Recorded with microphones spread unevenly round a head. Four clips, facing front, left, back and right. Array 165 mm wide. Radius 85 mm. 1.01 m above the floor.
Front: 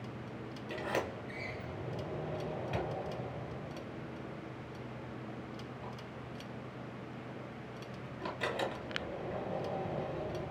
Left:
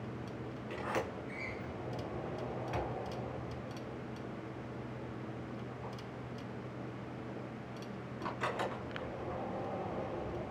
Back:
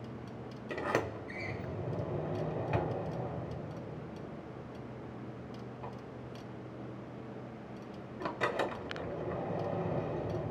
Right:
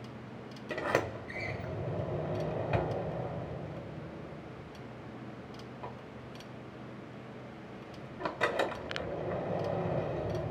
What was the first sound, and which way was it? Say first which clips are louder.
A sliding door: right 6 dB, back 3 dB; 120° right.